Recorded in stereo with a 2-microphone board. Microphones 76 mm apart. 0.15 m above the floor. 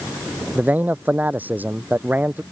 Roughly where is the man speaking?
Right.